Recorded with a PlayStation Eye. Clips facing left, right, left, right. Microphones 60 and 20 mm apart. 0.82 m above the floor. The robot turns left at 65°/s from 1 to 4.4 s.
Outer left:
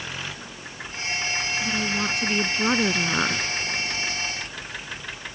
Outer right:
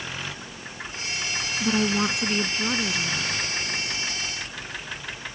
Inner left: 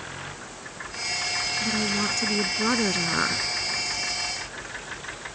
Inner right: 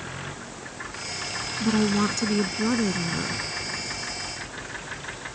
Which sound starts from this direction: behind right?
A woman speaking, at 1.6 s.